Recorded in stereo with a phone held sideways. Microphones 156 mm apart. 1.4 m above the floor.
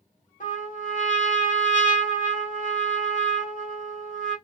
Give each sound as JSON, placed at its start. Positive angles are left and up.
{"t": 0.4, "sound": "a trumpet", "side_deg": 55, "distance_m": 1.4}